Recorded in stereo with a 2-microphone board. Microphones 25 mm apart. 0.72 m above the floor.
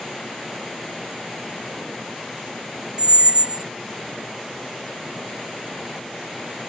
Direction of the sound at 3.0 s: 45° right (ahead or behind).